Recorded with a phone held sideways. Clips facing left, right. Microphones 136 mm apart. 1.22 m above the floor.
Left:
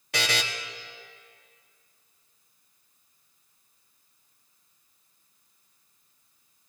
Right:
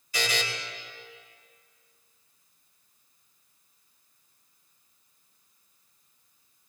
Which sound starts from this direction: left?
A buzzer, at 0.1 s.